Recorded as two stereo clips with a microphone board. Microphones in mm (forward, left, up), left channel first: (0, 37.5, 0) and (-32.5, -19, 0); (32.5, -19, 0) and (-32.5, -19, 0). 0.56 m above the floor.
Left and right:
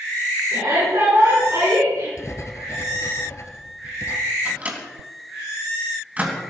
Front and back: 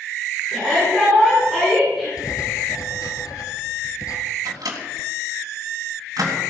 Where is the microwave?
175° left, 3.5 m.